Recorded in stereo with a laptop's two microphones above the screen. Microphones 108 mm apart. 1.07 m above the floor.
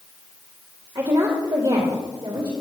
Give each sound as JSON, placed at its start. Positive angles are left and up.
{"t": 0.9, "sound": "a woman speaking", "side_deg": -45, "distance_m": 2.0}